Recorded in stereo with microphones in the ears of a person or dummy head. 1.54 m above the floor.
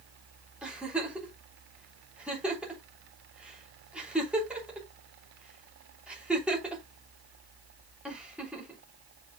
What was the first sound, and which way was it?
A giggle, 10° right (ahead or behind).